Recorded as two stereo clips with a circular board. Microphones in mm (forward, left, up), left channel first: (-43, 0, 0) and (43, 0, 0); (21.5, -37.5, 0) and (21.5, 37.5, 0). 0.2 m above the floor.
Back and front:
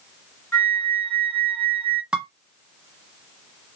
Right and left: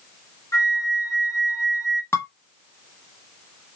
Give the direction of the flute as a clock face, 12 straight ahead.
4 o'clock.